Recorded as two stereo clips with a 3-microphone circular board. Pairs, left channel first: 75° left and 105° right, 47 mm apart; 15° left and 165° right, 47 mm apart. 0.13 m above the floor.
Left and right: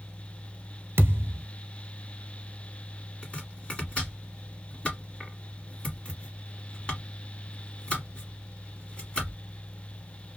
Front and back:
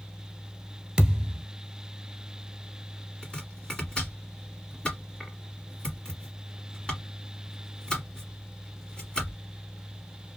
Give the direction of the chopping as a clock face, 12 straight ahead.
10 o'clock.